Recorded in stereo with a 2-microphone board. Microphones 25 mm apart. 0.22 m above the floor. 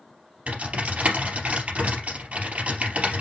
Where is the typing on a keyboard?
65° right (ahead or behind), 3 m.